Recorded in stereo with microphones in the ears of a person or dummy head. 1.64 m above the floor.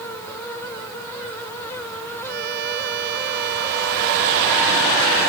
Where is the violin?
55° right (ahead or behind).